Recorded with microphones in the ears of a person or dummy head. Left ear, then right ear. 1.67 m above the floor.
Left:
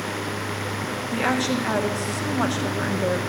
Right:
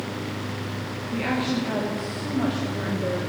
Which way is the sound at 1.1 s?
50° left (ahead or behind).